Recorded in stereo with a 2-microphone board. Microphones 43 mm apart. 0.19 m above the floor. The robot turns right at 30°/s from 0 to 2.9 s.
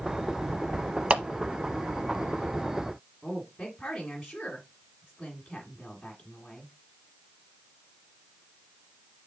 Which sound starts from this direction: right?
A clap, at 1.1 s.